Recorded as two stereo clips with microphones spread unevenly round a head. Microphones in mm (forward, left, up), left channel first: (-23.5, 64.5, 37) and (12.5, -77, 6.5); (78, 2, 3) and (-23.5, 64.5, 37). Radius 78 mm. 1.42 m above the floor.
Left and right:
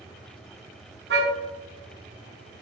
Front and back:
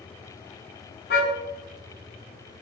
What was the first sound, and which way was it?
A car horn, 50° right.